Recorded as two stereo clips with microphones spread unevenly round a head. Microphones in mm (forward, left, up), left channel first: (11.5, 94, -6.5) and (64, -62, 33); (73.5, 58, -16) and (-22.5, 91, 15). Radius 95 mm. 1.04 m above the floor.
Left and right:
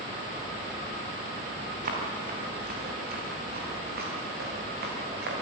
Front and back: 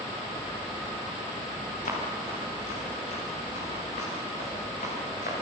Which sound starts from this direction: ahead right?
Running footsteps, at 1.9 s.